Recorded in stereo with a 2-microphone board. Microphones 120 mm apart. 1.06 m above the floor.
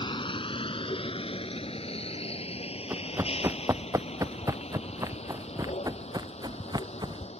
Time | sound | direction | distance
0.0 | a vehicle | 45° left (ahead or behind) | ?
2.9 | running footsteps | 25° right (ahead or behind) | ?